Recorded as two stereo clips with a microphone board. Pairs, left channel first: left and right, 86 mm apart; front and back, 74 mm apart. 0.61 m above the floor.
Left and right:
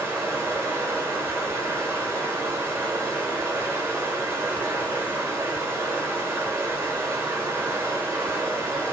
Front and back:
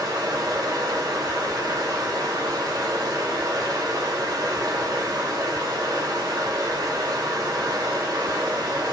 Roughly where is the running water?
Behind right.